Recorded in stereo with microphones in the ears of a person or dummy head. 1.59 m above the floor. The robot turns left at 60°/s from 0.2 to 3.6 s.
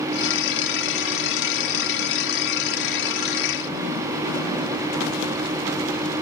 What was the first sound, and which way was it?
Only background noise.